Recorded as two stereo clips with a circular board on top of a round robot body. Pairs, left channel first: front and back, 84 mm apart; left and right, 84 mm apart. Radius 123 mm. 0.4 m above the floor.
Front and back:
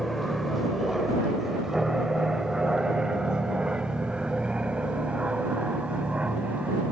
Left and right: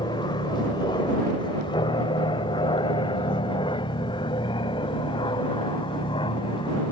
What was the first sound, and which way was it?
An aircraft, 90° left.